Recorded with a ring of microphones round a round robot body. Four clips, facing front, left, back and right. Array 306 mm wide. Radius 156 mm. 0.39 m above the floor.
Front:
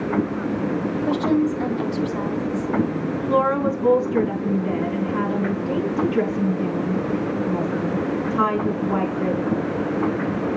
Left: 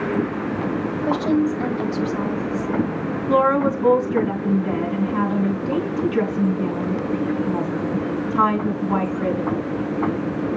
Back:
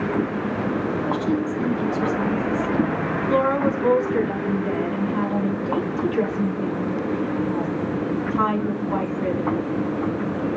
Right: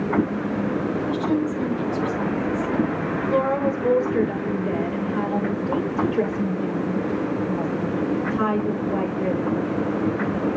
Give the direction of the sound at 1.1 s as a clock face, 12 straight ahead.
10 o'clock.